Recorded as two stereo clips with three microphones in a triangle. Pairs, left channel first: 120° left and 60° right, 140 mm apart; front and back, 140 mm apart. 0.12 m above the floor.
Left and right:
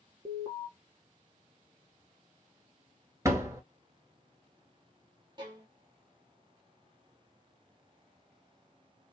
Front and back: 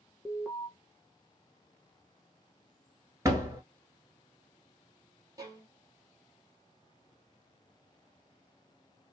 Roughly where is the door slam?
Behind right.